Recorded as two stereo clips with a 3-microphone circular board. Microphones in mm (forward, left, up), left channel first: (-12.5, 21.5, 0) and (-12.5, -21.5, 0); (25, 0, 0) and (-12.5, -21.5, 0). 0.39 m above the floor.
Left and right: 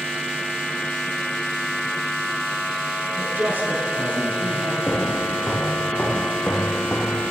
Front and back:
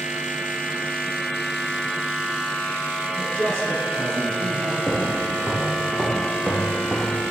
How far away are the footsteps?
About 4 m.